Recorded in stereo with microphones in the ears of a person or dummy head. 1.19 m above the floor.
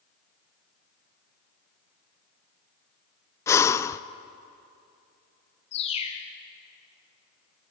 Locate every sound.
3.5 s breathing: 15° left (ahead or behind), 0.6 m
5.7 s a bird: 35° left (ahead or behind), 2.5 m